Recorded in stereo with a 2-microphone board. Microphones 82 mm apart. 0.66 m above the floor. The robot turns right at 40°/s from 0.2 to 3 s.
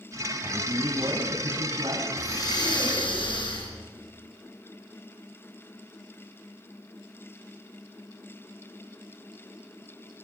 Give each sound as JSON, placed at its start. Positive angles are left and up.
{"t": 0.4, "sound": "a man speaking", "azimuth_deg": -155, "distance_m": 5.5}
{"t": 2.2, "sound": "breathing", "azimuth_deg": 40, "distance_m": 5.5}